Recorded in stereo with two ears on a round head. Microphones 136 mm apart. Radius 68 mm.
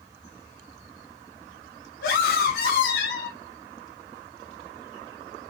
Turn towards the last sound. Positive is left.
turn(degrees=70)  # may be behind; listen again after turning